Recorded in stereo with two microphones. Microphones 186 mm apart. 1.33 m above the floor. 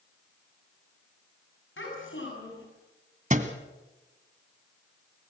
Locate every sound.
1.8 s a child speaking: 85° left, 7.5 m
3.3 s a thud: 40° right (ahead or behind), 1.9 m